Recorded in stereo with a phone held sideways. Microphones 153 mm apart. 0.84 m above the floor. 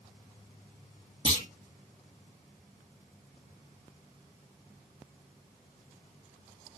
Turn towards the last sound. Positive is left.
turn(degrees=40)  # may be behind; listen again after turning